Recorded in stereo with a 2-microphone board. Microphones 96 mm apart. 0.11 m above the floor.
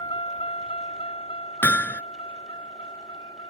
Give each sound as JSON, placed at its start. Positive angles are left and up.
{"t": 0.0, "sound": "a vehicle", "side_deg": 55}
{"t": 1.6, "sound": "hammering", "side_deg": 20}